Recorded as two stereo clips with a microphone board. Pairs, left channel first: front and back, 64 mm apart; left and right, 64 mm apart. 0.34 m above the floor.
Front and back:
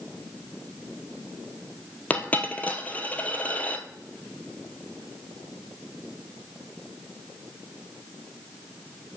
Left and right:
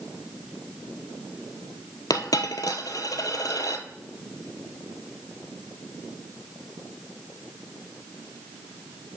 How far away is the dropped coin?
About 1.1 m.